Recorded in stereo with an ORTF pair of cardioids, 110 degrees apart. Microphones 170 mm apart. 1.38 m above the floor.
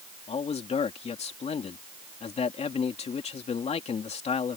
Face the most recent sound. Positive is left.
turn(degrees=40)